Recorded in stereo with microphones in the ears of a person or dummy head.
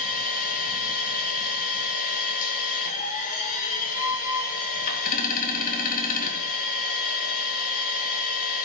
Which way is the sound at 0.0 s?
45° left (ahead or behind).